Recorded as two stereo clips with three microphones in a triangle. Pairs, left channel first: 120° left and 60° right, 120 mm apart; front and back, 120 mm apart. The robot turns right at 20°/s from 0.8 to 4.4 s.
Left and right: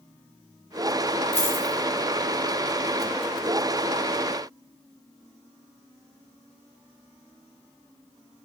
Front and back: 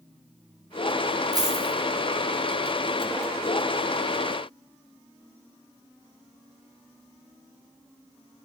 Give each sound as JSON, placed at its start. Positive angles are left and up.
{"t": 1.3, "sound": "a dropped coin", "azimuth_deg": 125, "distance_m": 2.5}